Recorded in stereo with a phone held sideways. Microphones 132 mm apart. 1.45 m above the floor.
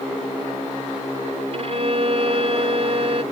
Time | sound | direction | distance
1.5 | a violin | 50° right (ahead or behind) | ?